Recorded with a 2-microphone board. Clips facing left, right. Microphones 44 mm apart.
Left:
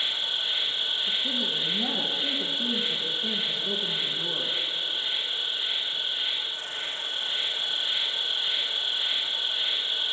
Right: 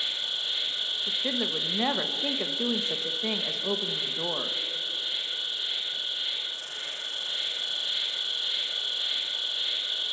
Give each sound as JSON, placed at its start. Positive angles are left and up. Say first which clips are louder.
{"t": 0.0, "sound": "an insect", "louder": "left 3 dB", "side_deg": 30, "distance_m": 2.0}
{"t": 1.1, "sound": "a woman speaking", "louder": "left 1 dB", "side_deg": -70, "distance_m": 1.3}